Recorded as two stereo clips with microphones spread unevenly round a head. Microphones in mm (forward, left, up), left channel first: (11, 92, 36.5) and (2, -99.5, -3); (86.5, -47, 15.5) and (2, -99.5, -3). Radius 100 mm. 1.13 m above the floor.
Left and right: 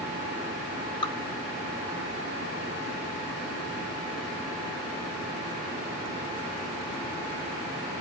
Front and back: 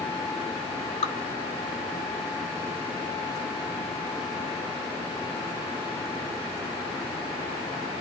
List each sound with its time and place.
1.0 s dripping: 20° left, 3.5 m